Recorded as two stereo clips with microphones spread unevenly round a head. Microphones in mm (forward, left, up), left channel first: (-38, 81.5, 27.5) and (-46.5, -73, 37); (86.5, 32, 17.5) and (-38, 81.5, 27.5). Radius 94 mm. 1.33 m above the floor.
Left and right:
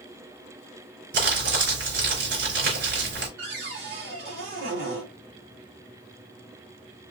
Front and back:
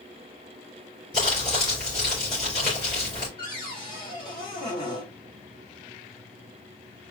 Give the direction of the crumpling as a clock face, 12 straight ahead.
3 o'clock.